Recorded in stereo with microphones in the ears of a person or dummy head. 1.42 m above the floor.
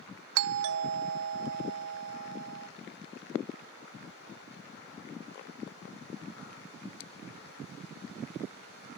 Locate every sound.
0.3 s a doorbell: 70° right (ahead or behind), 0.5 m